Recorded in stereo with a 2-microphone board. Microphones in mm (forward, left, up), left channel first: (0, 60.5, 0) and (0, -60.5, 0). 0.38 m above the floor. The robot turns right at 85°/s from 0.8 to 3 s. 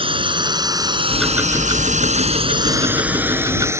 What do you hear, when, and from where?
0.0 s a drone: 45° right (ahead or behind); by 3.8 s 20° right (ahead or behind)
1.1 s ticking: 170° left; by 3.7 s 30° right